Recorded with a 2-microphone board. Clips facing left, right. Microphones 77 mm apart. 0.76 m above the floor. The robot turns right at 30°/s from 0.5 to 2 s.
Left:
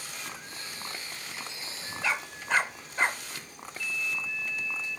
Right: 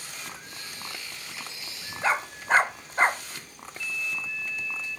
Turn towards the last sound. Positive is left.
turn(degrees=-40)  # may be behind; listen again after turning